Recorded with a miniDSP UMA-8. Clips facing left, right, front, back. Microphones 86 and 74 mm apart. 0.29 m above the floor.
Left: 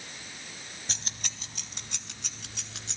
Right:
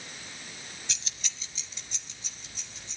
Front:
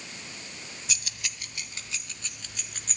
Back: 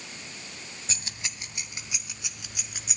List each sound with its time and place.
0.9 s keys jangling: 130° left, 1.0 m; by 3.0 s 100° left, 2.5 m